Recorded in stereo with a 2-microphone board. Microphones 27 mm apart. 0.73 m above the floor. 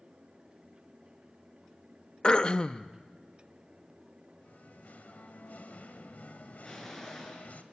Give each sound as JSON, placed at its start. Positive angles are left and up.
{"t": 2.2, "sound": "throat clearing", "side_deg": 30, "distance_m": 0.7}
{"t": 4.4, "sound": "singing", "side_deg": 70, "distance_m": 1.5}
{"t": 6.6, "sound": "an explosion", "side_deg": 10, "distance_m": 7.0}